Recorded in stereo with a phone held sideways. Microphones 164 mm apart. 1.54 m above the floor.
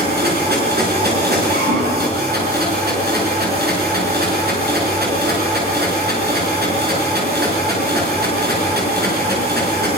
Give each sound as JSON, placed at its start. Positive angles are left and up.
{"t": 0.0, "sound": "a machine running", "side_deg": -75, "distance_m": 6.5}